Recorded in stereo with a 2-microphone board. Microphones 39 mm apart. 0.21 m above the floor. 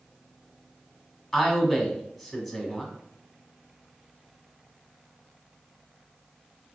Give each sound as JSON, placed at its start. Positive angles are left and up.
{"t": 1.3, "sound": "a man speaking", "side_deg": 5, "distance_m": 1.2}